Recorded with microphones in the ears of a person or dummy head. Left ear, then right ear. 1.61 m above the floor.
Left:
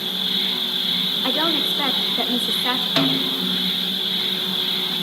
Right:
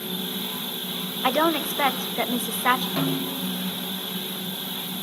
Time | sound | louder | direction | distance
0.0 | an insect | left 9 dB | 50° left (ahead or behind) | 10 m
1.2 | a woman speaking | right 2 dB | 30° right (ahead or behind) | 1.0 m
3.0 | a snare drum | left 8 dB | 50° left (ahead or behind) | 3 m